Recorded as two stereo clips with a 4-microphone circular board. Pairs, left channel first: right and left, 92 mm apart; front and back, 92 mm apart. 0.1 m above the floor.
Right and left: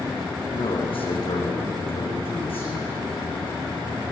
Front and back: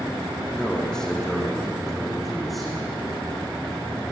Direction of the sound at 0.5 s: 80° right.